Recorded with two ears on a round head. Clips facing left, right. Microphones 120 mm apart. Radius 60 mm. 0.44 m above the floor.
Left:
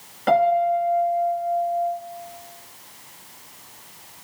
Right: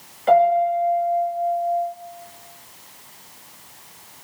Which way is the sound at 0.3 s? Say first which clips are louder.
Right 2 dB; 65° left (ahead or behind).